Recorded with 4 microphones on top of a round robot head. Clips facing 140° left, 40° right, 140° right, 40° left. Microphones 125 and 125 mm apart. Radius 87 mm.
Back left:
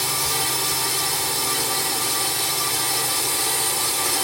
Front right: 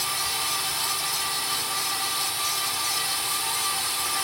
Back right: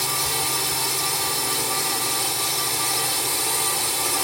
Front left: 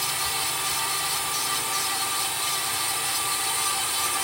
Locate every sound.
0.0 s a drone: 175° left